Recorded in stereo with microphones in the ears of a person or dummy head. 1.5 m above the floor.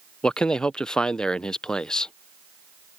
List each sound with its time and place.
0.2 s a man speaking: centre (ahead or behind)